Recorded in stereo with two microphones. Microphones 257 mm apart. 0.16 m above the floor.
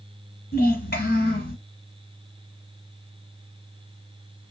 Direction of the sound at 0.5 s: 35° left (ahead or behind).